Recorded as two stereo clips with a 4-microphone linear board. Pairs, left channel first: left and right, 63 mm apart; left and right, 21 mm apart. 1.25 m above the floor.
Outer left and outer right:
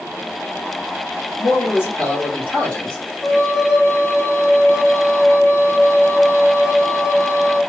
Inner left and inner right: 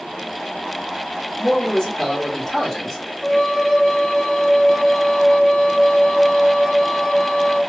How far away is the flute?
About 1.4 m.